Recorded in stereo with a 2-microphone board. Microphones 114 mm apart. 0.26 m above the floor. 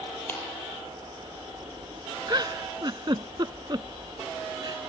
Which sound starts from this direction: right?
A giggle, at 2.3 s.